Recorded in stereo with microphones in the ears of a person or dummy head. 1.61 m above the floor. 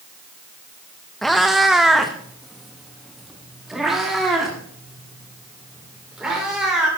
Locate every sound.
1.2 s a cat meowing: 5° left (ahead or behind), 0.8 m; by 6.9 s 5° right (ahead or behind), 3.5 m